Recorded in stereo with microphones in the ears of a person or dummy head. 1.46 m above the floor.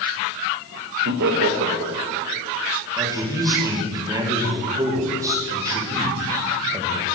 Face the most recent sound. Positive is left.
turn(degrees=-20)  # may be behind; listen again after turning